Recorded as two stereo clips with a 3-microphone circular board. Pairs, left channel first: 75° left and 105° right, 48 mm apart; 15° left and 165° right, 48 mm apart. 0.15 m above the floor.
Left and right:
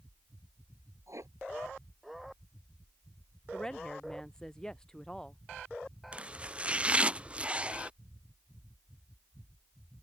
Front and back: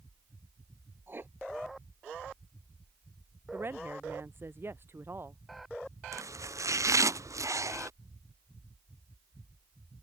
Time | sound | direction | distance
1.1 | writing | 120° right | ?
3.5 | a woman speaking | 150° left | ?
6.1 | chopping | 170° right | ?